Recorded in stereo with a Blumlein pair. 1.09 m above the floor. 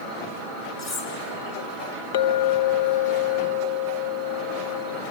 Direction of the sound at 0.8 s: 45° left.